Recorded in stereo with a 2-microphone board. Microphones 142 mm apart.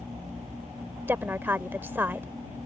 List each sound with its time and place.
1.1 s a woman speaking: 15° right (ahead or behind)